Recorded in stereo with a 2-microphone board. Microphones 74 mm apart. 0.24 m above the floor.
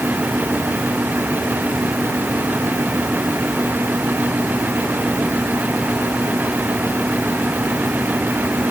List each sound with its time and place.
Only background noise.